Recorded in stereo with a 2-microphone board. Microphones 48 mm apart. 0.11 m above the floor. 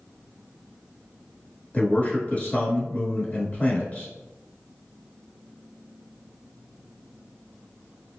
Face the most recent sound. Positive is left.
turn(degrees=30)  # may be behind; listen again after turning